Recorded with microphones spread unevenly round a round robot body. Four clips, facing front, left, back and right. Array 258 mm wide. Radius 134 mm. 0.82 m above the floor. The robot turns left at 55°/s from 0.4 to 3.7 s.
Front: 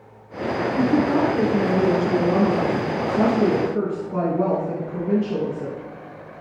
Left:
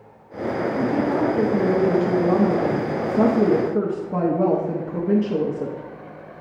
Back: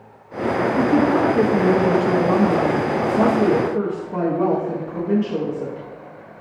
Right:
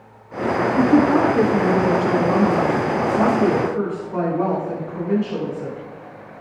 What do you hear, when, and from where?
0.8 s a woman speaking: 115° right, 1.0 m; by 5.8 s 85° left, 1.0 m